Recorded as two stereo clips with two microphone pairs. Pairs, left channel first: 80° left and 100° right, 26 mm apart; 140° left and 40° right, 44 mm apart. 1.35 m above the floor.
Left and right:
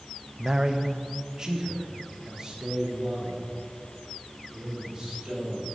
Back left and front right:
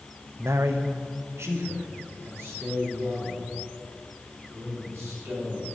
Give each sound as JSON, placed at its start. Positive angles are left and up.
{"t": 0.4, "sound": "a man speaking", "azimuth_deg": -35, "distance_m": 0.5}